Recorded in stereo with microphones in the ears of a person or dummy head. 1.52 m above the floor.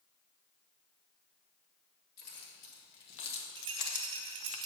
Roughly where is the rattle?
Right.